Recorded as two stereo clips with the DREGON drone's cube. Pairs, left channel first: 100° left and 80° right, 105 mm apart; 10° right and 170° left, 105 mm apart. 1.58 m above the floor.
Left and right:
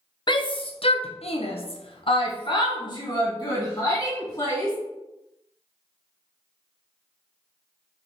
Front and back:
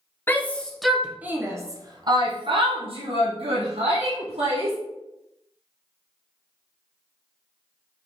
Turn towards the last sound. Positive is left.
turn(degrees=160)